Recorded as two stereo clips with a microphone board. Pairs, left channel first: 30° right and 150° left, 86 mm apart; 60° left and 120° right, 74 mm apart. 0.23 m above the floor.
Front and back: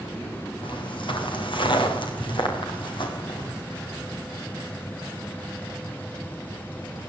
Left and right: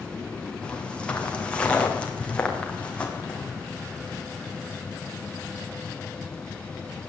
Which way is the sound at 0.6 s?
15° right.